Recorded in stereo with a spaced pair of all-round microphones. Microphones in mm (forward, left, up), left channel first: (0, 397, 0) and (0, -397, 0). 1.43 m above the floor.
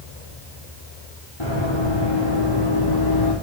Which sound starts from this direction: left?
Running footsteps, at 1.4 s.